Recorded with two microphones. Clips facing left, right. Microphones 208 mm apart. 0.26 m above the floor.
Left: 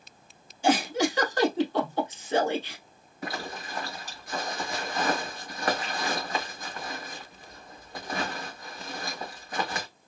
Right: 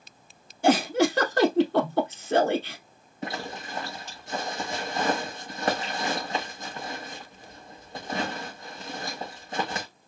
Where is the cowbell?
No cowbell in this recording.